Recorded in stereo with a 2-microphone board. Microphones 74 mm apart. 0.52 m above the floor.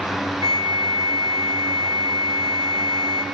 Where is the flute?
50° right (ahead or behind), 2.5 m.